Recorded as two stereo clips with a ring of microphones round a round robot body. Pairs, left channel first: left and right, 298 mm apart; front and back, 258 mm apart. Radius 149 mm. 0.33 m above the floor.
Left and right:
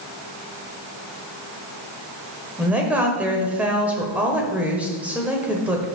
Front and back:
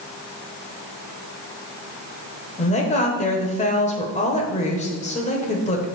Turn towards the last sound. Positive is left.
turn(degrees=-10)